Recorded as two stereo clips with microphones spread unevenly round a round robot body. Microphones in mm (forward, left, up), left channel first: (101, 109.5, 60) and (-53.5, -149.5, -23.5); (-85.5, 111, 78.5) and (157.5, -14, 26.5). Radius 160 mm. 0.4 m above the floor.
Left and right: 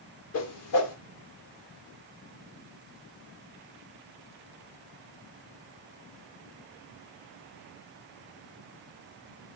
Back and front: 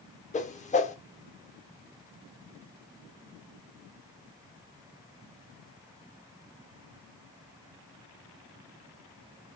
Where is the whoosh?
90° left, 1.4 m.